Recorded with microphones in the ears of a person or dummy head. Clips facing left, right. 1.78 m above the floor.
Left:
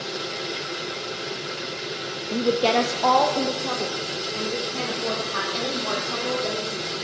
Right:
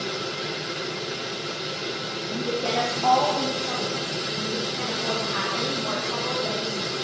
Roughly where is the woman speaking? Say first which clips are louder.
Left 6 dB; left.